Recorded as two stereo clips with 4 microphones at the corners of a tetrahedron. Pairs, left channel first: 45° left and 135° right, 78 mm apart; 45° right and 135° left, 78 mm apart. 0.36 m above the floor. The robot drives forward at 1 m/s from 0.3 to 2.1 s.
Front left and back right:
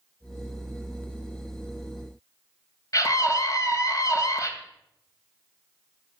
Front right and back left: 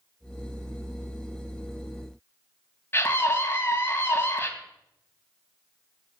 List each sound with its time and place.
2.9 s a scream: 10° left, 2.5 m